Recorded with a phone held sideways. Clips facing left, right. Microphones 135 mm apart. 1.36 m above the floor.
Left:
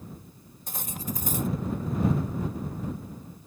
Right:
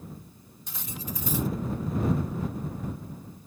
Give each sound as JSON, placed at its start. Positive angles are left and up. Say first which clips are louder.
{"t": 0.7, "sound": "cutlery clinking", "louder": "left 3 dB", "side_deg": 45}